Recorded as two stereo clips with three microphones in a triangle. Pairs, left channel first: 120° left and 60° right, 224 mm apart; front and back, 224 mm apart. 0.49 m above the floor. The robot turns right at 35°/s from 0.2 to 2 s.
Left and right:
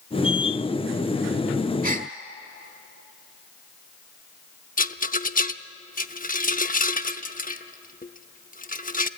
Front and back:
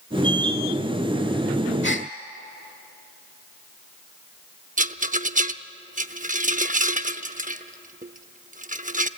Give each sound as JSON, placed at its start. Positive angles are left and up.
{"t": 1.8, "sound": "a gasp", "azimuth_deg": -20, "distance_m": 1.4}
{"t": 4.8, "sound": "a rattle", "azimuth_deg": 145, "distance_m": 0.7}